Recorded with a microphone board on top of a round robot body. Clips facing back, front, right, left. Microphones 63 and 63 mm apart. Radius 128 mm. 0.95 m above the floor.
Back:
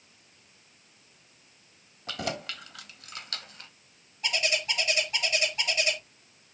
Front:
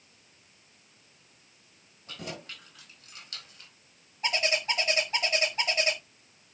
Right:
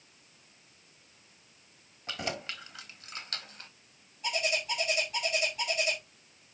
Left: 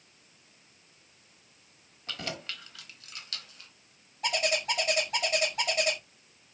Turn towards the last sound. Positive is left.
turn(degrees=60)